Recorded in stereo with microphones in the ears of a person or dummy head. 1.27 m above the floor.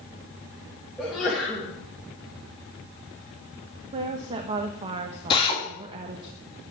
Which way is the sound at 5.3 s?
25° left (ahead or behind).